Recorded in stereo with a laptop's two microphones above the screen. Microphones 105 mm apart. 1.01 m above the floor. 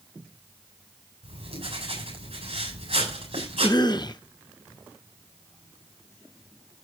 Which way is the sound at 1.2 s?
60° right (ahead or behind).